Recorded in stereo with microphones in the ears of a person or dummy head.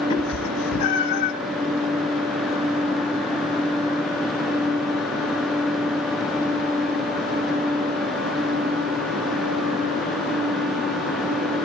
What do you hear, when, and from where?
0.1 s a cat meowing: 35° left (ahead or behind), 2 m; by 1.3 s 60° left (ahead or behind), 2.5 m